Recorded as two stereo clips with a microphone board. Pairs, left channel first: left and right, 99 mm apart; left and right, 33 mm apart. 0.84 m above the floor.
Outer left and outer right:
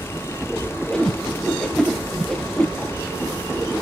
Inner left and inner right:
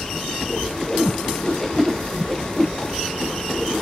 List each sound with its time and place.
0.9 s a whoosh: 5° left (ahead or behind), 0.6 m